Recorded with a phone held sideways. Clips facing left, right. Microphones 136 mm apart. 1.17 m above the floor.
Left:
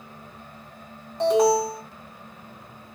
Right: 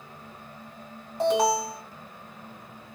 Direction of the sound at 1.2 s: 5° right (ahead or behind).